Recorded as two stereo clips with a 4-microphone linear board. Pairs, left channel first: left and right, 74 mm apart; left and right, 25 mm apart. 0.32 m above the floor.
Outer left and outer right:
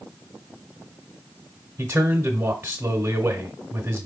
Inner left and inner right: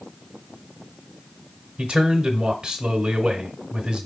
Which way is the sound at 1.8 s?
30° right (ahead or behind).